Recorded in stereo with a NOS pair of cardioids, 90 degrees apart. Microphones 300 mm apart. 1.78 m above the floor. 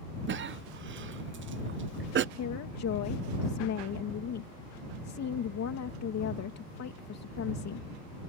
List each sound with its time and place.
0.3 s a cough: 40° right
2.4 s a woman speaking: 60° left